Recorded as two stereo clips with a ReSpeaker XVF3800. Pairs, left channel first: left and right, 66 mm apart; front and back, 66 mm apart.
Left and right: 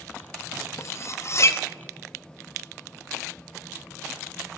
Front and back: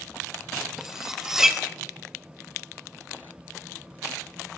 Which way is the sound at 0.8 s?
100° left.